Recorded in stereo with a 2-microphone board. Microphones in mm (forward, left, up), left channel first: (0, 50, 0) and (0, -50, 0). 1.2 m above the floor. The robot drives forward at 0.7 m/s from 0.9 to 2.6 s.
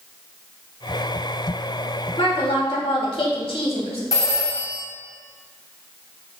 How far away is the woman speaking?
About 3 m.